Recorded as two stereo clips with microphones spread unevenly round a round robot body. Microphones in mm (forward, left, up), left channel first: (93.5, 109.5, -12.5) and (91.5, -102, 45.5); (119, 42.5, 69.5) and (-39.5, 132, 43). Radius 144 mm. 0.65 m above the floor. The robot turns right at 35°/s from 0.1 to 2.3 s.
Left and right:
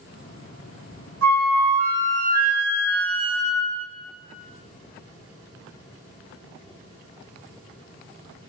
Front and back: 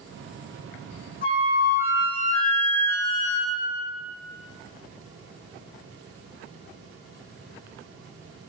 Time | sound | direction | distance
1.2 | a flute | 80° right | 0.8 m